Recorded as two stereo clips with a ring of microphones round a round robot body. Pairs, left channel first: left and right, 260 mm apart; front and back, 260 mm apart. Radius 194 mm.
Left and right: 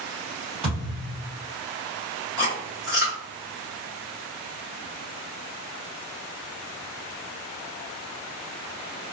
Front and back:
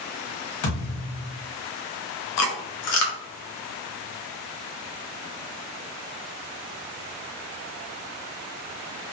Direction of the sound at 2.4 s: 30° left.